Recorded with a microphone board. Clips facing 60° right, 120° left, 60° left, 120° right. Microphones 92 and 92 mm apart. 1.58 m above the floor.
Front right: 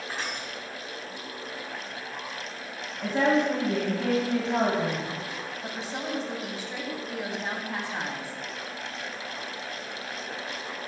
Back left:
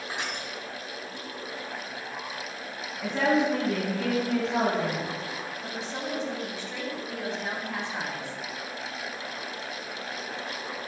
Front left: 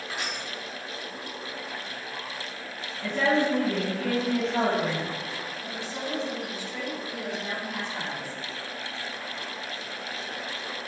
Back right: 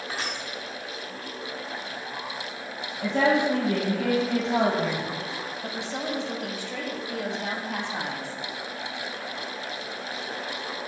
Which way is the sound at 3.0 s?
145° right.